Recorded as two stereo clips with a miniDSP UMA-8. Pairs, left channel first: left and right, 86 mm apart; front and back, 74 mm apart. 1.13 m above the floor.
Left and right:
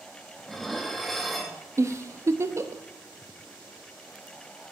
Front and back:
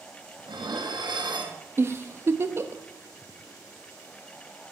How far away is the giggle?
About 0.6 m.